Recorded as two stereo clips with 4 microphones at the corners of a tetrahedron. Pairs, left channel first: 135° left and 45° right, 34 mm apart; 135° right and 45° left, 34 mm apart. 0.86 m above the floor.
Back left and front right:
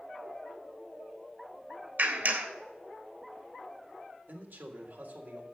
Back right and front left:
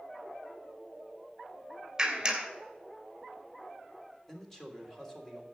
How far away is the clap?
About 2.5 m.